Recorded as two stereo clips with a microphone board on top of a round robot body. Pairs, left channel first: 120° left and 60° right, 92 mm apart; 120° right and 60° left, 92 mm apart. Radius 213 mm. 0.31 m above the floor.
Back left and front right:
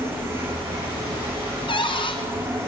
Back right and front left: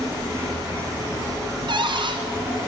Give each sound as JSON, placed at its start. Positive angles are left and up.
{"t": 0.0, "sound": "an insect", "azimuth_deg": 5, "distance_m": 9.0}
{"t": 1.7, "sound": "a cupboard door", "azimuth_deg": 90, "distance_m": 3.0}